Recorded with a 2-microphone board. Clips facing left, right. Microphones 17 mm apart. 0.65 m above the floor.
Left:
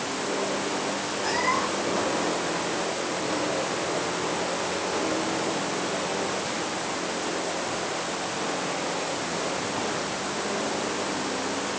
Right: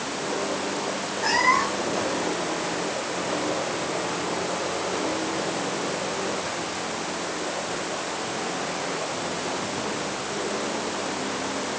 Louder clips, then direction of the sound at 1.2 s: Right 5 dB; 25° right (ahead or behind).